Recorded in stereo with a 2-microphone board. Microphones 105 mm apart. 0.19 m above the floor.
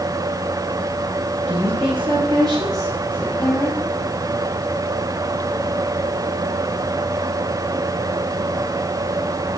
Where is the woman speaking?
65° right (ahead or behind), 3.5 m; by 3.8 s 15° left (ahead or behind), 1.5 m.